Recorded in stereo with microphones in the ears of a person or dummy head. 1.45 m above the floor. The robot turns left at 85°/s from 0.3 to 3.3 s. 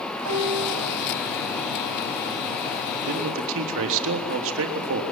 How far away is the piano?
About 4 m.